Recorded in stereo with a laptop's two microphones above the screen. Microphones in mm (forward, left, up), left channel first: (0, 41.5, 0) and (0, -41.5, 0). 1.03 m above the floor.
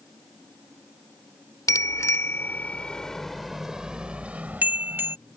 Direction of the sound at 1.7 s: 45° left (ahead or behind).